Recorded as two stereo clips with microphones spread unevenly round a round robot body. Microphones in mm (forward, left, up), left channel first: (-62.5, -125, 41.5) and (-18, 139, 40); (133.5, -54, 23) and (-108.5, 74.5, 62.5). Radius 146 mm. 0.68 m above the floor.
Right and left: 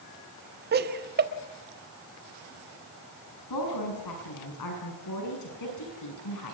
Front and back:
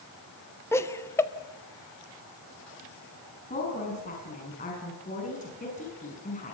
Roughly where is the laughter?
Ahead left.